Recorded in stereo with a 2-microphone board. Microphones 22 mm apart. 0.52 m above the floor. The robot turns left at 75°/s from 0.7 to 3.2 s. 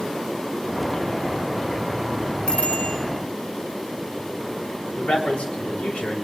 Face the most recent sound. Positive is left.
turn(degrees=65)  # may be behind; listen again after turning